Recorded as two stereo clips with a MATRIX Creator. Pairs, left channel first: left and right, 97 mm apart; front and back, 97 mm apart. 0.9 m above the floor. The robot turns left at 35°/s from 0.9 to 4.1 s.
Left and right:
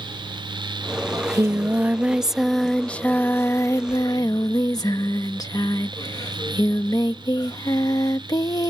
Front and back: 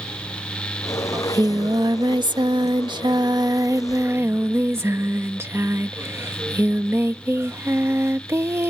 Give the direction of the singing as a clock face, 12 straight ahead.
4 o'clock.